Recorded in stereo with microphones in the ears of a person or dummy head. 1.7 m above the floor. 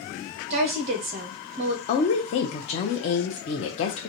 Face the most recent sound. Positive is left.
turn(degrees=35)  # may be behind; listen again after turning